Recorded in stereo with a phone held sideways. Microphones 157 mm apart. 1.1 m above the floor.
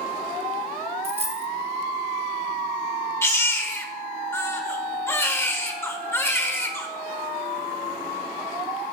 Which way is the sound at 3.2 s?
15° left (ahead or behind).